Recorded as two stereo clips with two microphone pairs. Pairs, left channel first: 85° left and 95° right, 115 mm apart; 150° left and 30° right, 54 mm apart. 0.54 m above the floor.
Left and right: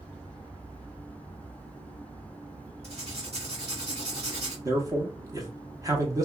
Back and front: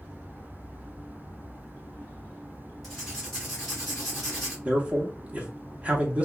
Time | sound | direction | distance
2.8 | writing | 120° right | 1.9 m
4.7 | a man speaking | 70° right | 0.8 m